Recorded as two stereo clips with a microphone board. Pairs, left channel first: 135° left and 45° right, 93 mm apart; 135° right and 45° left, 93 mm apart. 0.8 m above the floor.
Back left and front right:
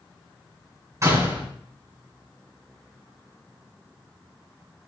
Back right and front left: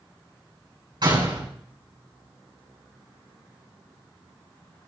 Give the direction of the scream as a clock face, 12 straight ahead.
I don't hear a scream.